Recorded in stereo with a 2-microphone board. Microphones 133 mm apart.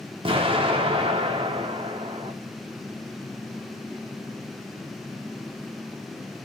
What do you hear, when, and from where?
0.2 s an explosion: 40° right (ahead or behind), 0.8 m